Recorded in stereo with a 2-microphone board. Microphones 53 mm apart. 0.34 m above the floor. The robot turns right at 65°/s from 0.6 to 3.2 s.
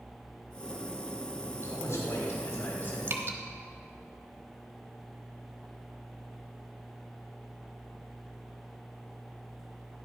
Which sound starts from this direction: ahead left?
A man speaking, at 1.5 s.